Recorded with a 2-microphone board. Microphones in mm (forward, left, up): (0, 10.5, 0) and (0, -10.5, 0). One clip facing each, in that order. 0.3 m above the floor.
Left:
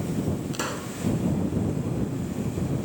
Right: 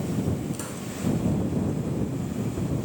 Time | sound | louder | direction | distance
0.5 | a pop | left 4 dB | 45° left (ahead or behind) | ?